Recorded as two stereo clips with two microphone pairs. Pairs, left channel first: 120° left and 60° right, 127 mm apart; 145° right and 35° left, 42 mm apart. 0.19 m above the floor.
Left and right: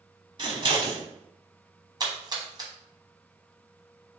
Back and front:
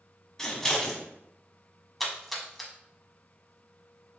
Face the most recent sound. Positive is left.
turn(degrees=-60)